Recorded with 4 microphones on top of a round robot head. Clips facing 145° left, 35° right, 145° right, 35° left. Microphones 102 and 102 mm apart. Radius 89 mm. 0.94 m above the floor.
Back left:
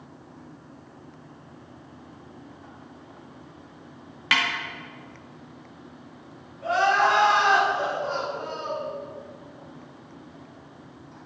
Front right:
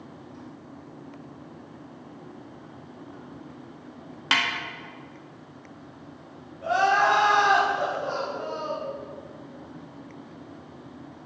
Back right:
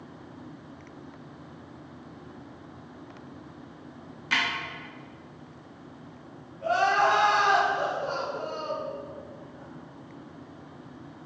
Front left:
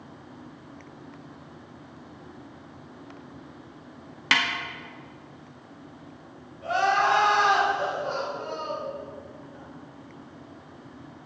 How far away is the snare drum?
About 1.5 m.